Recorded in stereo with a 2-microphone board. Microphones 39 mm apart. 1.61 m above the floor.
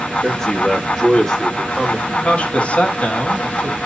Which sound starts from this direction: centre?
A man speaking, at 0.2 s.